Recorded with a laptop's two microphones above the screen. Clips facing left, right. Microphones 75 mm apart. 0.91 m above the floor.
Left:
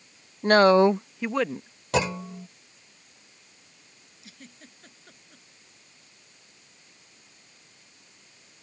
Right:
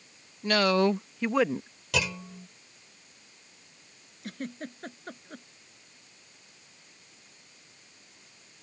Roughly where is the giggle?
Right.